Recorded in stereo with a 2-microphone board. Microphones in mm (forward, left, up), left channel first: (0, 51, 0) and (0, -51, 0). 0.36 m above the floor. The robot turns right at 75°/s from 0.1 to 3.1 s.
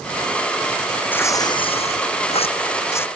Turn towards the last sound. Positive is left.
turn(degrees=165)